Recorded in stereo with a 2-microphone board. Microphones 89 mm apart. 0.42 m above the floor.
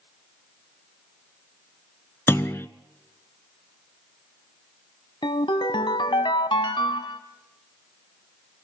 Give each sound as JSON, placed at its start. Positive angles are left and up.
{"t": 2.3, "sound": "a clunk", "side_deg": 30, "distance_m": 0.8}
{"t": 5.2, "sound": "a ringtone", "side_deg": 65, "distance_m": 1.0}